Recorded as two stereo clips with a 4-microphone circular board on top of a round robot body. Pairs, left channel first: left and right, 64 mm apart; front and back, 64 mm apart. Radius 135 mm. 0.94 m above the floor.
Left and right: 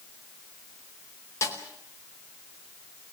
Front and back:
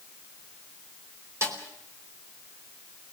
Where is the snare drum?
135° left, 4.5 m.